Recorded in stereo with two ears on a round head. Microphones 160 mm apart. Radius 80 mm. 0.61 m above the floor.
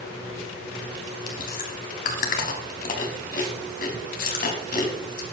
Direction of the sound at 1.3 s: 50° left (ahead or behind).